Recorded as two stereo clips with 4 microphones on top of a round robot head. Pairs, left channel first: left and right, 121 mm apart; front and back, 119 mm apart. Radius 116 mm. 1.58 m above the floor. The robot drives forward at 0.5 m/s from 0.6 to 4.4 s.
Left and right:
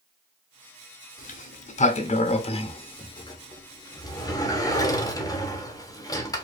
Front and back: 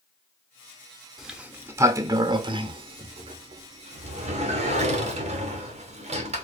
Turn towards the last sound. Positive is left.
turn(degrees=150)